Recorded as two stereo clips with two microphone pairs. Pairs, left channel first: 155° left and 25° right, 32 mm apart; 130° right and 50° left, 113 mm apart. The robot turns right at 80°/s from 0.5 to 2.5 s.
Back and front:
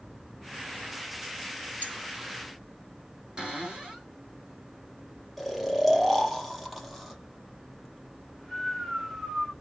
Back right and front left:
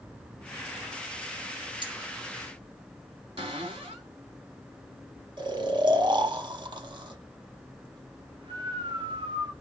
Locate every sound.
1.8 s cutlery clinking: 5° left, 1.4 m; by 2.0 s 20° left, 1.4 m
3.4 s a cupboard door: 35° left, 2 m
5.4 s snoring: 60° left, 0.8 m